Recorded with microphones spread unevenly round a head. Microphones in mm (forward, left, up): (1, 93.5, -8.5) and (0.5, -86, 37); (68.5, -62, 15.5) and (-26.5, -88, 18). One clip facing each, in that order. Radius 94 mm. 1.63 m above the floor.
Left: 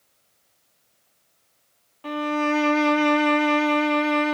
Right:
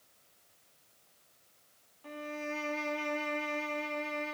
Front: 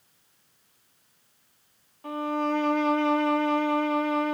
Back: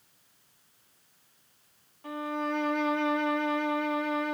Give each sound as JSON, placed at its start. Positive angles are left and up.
{"t": 2.0, "sound": "a violin", "azimuth_deg": 80, "distance_m": 0.5}